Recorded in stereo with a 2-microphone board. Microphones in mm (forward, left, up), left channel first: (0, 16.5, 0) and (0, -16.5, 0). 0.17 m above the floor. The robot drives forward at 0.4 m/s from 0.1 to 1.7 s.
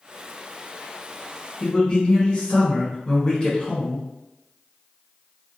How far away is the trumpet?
I don't hear a trumpet.